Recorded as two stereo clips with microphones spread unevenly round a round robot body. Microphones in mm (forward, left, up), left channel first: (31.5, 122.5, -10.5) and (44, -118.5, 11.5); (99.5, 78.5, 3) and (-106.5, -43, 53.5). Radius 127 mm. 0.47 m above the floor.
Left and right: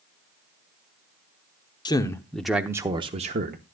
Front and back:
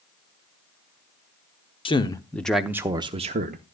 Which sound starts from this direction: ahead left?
A man speaking, at 1.9 s.